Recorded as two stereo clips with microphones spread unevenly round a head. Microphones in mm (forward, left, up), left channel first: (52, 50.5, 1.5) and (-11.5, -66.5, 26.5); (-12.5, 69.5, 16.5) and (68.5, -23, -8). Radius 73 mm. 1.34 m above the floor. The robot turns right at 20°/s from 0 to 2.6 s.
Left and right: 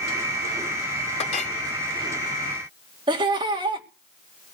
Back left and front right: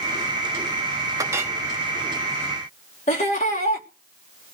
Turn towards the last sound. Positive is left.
turn(degrees=180)